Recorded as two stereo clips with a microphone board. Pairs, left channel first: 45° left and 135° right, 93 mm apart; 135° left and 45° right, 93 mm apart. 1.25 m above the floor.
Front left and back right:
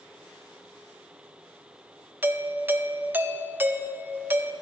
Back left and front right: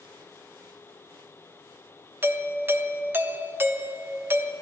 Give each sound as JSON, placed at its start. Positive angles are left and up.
{"t": 2.2, "sound": "a doorbell", "azimuth_deg": -85, "distance_m": 0.5}